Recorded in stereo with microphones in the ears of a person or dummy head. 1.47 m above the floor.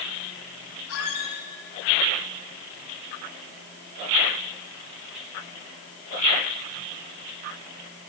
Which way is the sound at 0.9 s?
80° left.